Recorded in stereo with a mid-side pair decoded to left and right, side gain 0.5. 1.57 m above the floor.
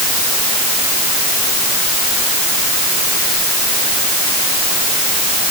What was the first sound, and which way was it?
Only background noise.